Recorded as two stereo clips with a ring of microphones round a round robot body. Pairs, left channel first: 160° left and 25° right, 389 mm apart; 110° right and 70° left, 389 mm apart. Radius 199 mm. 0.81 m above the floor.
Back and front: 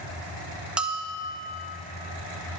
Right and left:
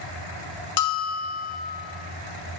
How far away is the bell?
About 1.1 m.